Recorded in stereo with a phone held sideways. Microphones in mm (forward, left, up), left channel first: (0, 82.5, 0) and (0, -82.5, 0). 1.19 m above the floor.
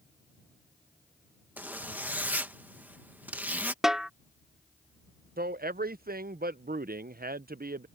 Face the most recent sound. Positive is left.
turn(degrees=-65)  # may be behind; listen again after turning